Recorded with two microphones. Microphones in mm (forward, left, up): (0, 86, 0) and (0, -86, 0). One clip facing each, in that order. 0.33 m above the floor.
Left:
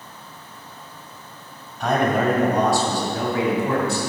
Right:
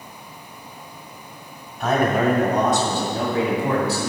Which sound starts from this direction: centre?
A man speaking, at 1.8 s.